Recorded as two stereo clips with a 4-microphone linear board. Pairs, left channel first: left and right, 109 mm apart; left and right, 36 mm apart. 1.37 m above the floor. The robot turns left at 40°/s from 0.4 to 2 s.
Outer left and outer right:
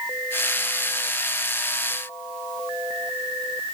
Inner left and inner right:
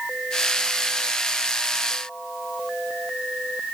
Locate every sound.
Only background noise.